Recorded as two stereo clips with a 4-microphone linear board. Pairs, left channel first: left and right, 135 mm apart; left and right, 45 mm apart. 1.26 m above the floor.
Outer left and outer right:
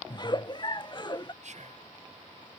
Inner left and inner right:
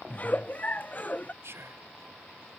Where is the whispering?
65° right (ahead or behind).